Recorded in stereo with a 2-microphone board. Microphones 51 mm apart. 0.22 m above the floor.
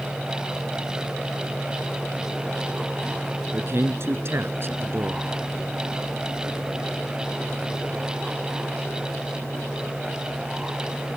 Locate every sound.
3.5 s a man speaking: 55° right (ahead or behind)